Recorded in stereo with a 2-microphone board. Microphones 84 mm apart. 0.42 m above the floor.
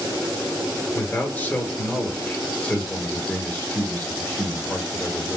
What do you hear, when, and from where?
0.9 s a man speaking: 20° left (ahead or behind), 1.3 m